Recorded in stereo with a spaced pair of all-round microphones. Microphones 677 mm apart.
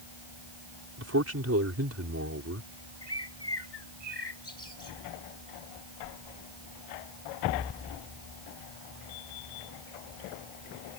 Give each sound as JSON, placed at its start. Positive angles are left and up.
{"t": 1.0, "sound": "a man speaking", "side_deg": -20}
{"t": 3.0, "sound": "a bird", "side_deg": 35}